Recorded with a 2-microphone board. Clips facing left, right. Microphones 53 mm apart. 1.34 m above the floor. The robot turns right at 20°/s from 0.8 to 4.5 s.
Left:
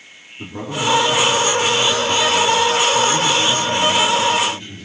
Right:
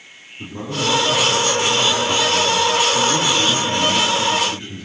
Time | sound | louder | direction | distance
0.4 | a man speaking | left 1 dB | 155° left | 2.5 m